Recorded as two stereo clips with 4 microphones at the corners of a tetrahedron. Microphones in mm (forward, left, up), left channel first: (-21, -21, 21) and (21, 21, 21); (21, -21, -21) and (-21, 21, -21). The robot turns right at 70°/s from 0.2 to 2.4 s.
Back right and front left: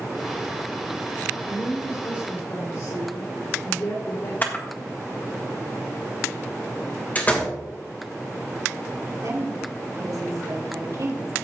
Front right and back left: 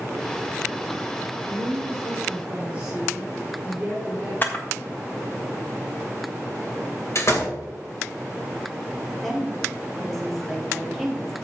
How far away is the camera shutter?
About 1.6 m.